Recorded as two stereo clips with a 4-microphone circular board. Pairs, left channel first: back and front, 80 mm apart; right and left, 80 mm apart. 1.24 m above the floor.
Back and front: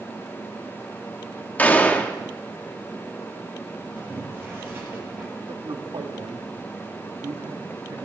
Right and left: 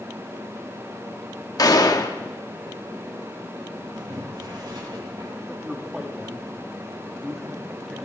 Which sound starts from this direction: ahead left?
Boiling, at 4.0 s.